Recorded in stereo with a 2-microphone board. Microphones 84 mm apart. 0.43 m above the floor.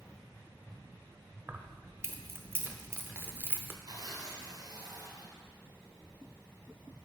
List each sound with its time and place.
1.5 s keys jangling: 25° right (ahead or behind), 0.6 m
3.9 s tearing paper: 50° right (ahead or behind), 1.8 m